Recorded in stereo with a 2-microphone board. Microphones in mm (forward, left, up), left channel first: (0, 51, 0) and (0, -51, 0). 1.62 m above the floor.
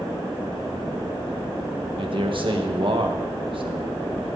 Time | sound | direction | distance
2.0 | a man speaking | 55° right (ahead or behind) | 2 m